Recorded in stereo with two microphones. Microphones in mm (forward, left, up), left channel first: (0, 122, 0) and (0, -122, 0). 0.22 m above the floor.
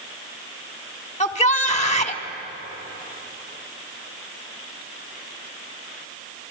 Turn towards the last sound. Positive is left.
turn(degrees=30)  # may be behind; listen again after turning